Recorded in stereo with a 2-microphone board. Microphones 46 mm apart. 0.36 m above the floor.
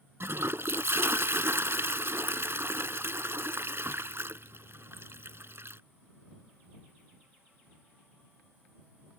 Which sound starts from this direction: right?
A toilet flushing, at 0.2 s.